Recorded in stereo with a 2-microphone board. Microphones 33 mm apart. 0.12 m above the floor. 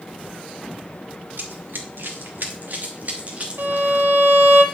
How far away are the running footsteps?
About 2 m.